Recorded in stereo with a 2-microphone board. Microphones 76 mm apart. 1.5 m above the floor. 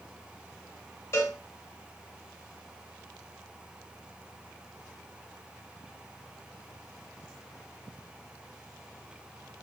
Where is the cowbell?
35° left (ahead or behind), 2 m.